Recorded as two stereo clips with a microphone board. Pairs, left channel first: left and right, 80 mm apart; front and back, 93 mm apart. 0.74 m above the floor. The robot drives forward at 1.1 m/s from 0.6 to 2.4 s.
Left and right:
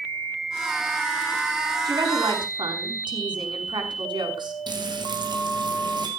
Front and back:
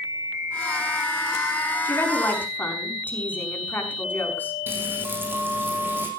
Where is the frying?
110° right, 5.5 m.